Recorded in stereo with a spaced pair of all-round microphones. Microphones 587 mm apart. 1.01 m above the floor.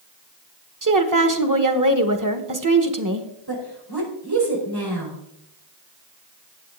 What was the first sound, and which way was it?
A woman speaking, 30° right (ahead or behind).